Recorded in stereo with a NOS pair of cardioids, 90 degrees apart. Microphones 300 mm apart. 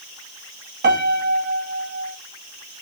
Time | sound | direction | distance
0.8 | a piano | 35° right | 1.6 m